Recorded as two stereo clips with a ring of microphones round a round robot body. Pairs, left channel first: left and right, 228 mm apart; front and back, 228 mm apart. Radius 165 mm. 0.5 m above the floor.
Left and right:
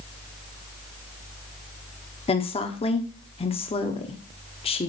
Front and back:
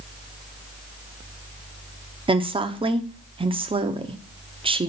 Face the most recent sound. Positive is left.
turn(degrees=130)